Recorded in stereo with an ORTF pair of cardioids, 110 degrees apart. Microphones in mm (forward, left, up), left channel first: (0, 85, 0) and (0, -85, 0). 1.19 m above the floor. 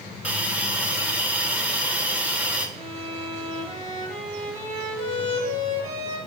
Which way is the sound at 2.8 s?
40° right.